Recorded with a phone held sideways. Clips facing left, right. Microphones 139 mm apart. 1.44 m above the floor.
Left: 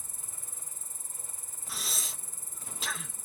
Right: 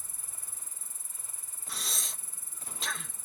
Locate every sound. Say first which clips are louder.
0.0 s an insect: left 2 dB; 45° left (ahead or behind)
1.7 s breathing: left 1 dB; centre (ahead or behind)